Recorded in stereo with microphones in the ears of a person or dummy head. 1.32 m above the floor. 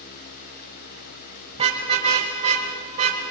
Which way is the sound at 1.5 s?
30° right (ahead or behind).